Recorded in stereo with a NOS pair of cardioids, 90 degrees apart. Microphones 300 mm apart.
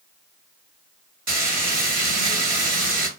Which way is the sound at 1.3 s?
55° right.